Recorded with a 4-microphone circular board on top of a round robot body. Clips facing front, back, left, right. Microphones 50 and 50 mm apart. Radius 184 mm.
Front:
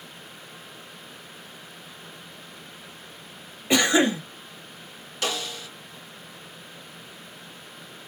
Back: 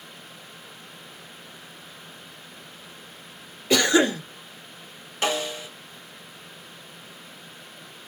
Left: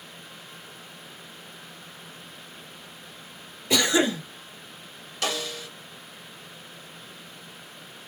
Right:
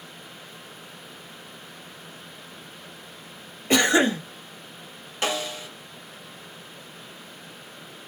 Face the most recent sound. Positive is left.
turn(degrees=-135)